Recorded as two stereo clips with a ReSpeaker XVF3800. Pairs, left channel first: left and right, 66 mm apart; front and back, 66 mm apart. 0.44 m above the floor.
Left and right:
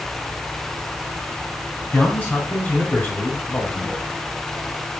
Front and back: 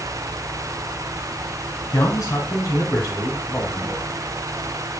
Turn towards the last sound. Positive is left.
turn(degrees=60)